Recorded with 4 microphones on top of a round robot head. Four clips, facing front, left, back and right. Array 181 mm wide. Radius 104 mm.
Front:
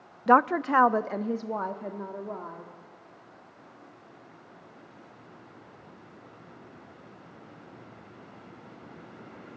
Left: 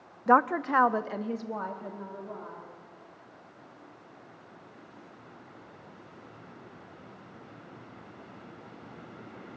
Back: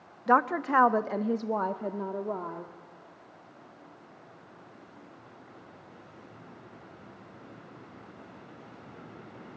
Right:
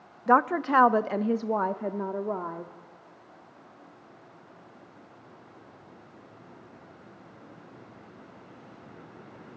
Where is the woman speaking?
5° left, 0.7 m; by 2.7 s 115° right, 1.4 m.